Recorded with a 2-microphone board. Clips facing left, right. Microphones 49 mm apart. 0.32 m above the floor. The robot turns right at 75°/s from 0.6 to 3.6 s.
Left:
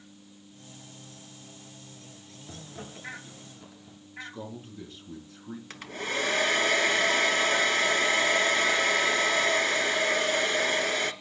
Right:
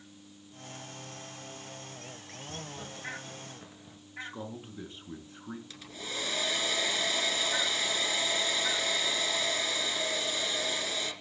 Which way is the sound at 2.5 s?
55° left (ahead or behind).